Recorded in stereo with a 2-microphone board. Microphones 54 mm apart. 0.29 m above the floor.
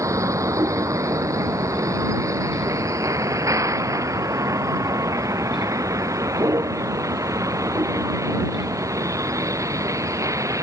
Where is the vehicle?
75° right (ahead or behind); by 10.6 s 80° right.